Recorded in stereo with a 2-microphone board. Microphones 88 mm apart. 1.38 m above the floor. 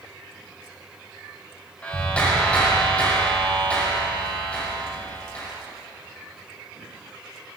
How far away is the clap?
About 6 m.